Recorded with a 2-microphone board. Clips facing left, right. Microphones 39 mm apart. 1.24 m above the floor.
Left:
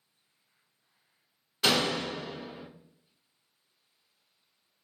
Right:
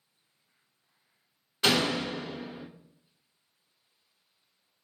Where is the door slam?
5° right (ahead or behind), 0.6 m.